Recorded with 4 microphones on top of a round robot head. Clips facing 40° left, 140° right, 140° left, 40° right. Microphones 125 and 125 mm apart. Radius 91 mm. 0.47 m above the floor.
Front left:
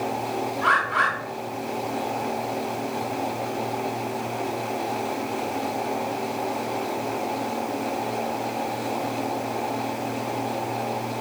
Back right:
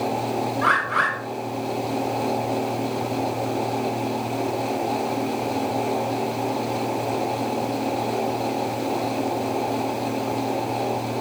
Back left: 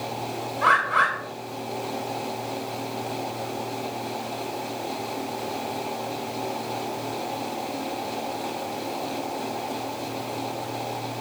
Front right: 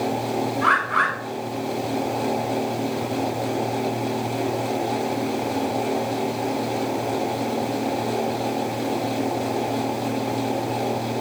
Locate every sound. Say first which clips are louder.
0.6 s a bird: even, even; 175° right, 5 m